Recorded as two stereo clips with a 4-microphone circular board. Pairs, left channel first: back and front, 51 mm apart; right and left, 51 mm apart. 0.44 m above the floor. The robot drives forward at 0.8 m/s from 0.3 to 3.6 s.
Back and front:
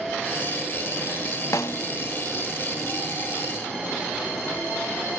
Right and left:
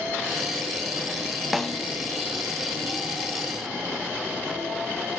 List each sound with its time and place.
1.5 s a snare drum: straight behind, 0.7 m